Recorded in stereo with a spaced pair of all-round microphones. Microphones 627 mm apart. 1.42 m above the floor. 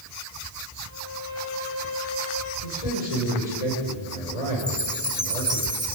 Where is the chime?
10° right (ahead or behind), 2.5 m.